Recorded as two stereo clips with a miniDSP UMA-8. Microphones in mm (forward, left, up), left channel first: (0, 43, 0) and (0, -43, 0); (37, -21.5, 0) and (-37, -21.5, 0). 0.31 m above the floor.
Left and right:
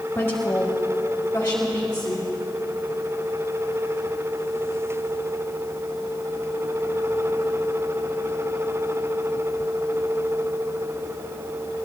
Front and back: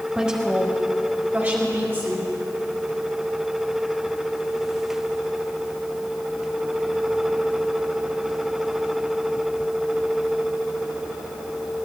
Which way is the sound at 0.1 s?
115° left.